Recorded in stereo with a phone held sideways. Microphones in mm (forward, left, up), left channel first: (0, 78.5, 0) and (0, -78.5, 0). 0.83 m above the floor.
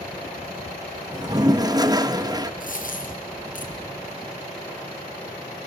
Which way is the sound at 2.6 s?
60° left (ahead or behind).